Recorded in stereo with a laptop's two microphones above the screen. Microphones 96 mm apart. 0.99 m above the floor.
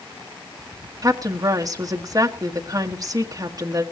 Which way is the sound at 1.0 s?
40° right (ahead or behind).